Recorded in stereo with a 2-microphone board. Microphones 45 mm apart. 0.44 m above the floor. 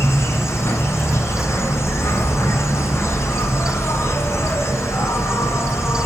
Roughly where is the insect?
Left.